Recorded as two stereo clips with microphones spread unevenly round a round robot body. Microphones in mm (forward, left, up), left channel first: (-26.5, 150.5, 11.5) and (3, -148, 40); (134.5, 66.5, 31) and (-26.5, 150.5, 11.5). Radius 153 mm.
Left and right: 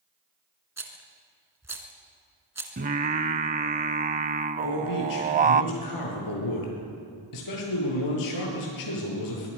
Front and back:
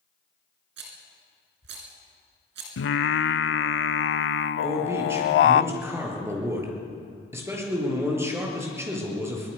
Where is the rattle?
170° right, 2.5 m.